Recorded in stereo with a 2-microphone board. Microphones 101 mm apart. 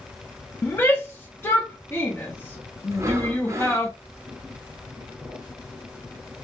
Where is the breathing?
30° right (ahead or behind), 0.5 m.